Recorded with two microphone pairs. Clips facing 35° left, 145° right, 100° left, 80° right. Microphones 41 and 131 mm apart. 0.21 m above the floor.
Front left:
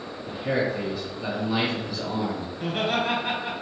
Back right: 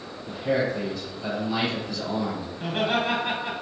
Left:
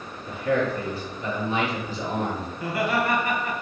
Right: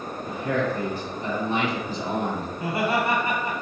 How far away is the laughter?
About 1.4 m.